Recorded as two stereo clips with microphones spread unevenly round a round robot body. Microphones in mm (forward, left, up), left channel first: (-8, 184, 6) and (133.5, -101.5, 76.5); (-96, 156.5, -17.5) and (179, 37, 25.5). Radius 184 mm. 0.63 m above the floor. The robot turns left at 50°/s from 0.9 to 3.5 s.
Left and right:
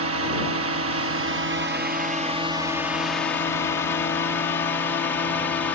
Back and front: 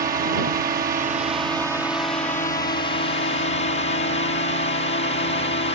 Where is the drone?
75° right; by 5.8 s 170° left.